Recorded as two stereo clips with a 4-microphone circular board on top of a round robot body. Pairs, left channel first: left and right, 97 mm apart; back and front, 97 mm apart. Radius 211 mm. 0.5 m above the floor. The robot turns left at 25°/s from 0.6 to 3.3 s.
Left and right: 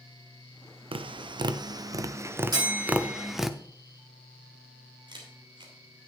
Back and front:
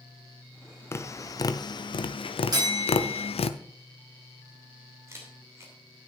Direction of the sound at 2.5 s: 45° right.